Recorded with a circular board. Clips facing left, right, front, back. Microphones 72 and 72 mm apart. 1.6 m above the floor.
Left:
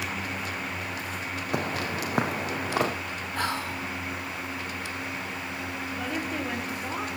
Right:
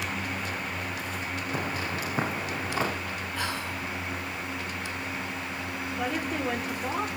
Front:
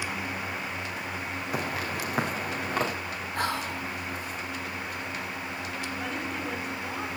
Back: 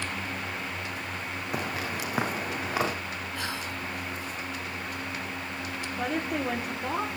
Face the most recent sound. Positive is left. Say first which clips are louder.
# right 2 dB, back 7 dB
turn(degrees=-175)